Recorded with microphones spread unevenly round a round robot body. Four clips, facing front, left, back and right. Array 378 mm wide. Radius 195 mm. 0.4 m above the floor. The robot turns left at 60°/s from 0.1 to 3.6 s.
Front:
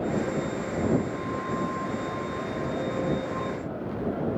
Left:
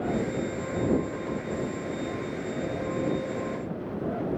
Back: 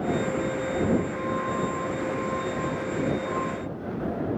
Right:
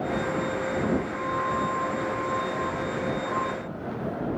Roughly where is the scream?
No scream in this recording.